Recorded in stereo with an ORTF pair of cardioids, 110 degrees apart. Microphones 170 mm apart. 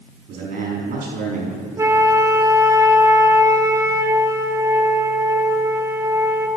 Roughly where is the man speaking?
Ahead right.